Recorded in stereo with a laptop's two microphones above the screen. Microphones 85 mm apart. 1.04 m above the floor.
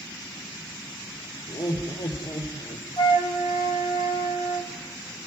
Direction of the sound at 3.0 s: 75° left (ahead or behind).